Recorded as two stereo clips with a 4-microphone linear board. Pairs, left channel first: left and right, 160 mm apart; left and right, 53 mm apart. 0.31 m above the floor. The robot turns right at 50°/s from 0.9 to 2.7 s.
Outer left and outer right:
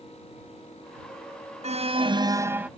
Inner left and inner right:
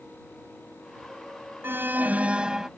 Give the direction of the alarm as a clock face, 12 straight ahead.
2 o'clock.